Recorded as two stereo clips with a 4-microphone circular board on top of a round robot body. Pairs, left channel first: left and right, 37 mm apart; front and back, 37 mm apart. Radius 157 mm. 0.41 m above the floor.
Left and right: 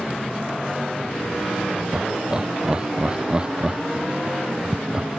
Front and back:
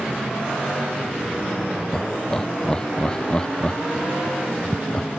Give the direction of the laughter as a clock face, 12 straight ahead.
2 o'clock.